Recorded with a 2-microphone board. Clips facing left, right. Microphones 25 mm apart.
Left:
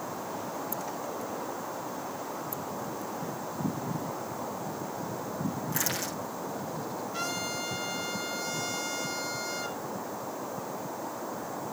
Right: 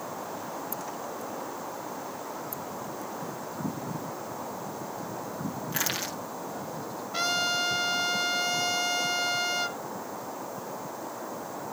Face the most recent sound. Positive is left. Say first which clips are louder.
# right 9 dB
turn(degrees=-50)  # may be behind; listen again after turning